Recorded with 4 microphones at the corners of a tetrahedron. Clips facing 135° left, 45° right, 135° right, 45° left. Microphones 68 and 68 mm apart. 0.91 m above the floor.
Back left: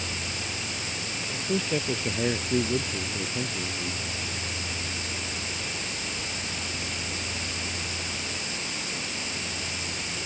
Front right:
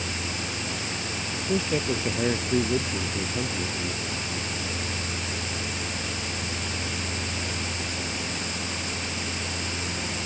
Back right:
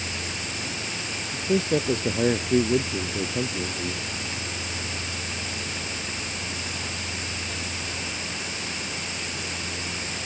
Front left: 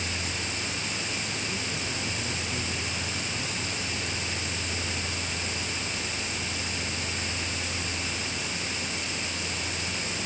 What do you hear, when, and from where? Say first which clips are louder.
1.3 s a man speaking: front right 1 dB, back right 10 dB; 130° right; by 4.0 s 120° right